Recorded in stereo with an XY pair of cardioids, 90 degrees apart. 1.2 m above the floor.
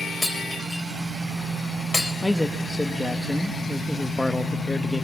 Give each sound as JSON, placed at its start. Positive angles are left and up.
{"t": 0.2, "sound": "breaking glass", "azimuth_deg": 20, "distance_m": 4.0}
{"t": 2.2, "sound": "a man speaking", "azimuth_deg": 10, "distance_m": 1.4}